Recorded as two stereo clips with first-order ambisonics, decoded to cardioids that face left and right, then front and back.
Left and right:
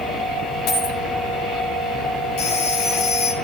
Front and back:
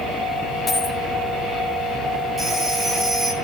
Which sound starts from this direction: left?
A phone ringing, at 2.4 s.